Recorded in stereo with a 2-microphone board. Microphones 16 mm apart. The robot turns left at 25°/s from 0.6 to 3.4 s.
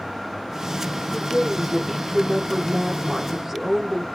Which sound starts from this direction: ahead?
A woman speaking, at 1.1 s.